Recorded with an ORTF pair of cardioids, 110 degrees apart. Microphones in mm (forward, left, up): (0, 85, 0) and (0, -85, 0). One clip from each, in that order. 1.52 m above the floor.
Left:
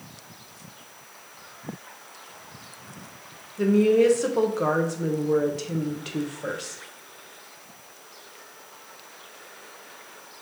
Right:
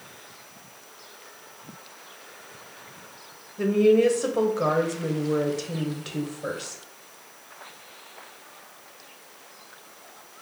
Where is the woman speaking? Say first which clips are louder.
Even; straight ahead, 0.8 m.